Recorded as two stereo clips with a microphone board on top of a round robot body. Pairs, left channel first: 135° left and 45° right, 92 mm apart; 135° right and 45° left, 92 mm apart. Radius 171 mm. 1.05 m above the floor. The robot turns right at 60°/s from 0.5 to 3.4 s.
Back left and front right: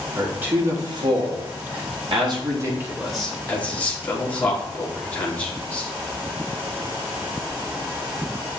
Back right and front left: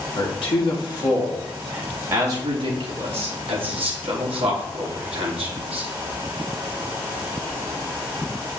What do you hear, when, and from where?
0.2 s a man speaking: 115° right, 3.5 m; by 5.9 s 60° left, 3.5 m